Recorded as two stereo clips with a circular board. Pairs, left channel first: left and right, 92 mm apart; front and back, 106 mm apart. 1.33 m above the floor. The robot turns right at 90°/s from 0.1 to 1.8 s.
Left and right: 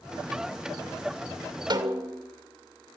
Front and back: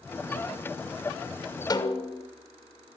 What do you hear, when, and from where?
1.7 s a snare drum: 50° right, 2.5 m; by 2.3 s 45° right, 2.5 m